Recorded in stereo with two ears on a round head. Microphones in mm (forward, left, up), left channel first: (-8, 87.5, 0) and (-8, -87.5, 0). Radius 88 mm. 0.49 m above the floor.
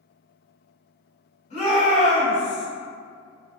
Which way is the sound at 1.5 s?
35° left (ahead or behind).